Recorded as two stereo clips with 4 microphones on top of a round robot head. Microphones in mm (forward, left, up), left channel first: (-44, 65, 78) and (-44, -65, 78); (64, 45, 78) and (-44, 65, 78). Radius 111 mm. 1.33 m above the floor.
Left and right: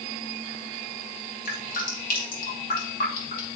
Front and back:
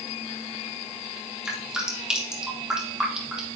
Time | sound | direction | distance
1.4 | dripping | 85° left | 2.5 m